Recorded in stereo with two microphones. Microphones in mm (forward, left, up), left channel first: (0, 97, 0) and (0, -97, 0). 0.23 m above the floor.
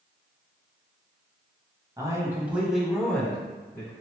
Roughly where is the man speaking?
Centre.